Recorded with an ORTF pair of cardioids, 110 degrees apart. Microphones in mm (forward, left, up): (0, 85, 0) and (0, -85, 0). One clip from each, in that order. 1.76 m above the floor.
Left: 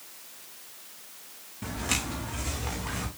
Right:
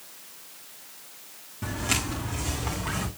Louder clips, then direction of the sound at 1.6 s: Right 2 dB; 5° right.